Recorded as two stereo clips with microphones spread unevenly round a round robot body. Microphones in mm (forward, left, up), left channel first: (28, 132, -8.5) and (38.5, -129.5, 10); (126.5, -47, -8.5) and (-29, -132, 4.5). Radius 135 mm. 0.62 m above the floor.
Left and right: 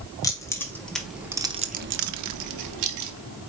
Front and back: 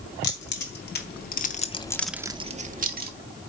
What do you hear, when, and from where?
0.2 s keys jangling: 15° left, 2 m; by 3.1 s 120° right, 1.3 m